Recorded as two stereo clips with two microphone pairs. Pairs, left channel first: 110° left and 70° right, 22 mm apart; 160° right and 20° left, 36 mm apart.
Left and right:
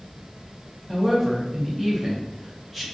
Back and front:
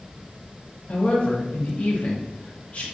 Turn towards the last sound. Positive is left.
turn(degrees=-160)